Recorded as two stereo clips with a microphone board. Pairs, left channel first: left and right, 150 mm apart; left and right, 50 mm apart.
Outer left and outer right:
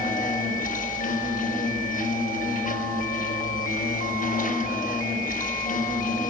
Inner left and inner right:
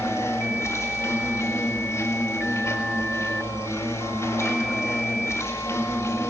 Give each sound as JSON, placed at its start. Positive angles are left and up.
{"t": 0.0, "sound": "an insect", "side_deg": 70, "distance_m": 5.5}